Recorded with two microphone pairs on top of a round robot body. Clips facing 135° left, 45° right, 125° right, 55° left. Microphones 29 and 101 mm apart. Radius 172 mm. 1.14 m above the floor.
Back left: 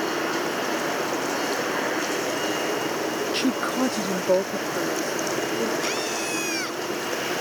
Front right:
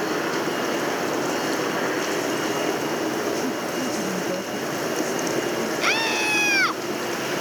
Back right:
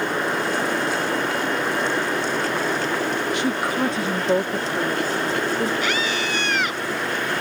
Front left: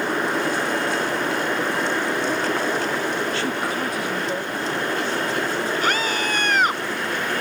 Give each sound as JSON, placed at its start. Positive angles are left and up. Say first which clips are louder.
{"t": 3.3, "sound": "a woman speaking", "louder": "back left 2 dB, back right 2 dB", "azimuth_deg": 160}
{"t": 5.8, "sound": "a scream", "louder": "front right 5 dB, front left 1 dB", "azimuth_deg": 5}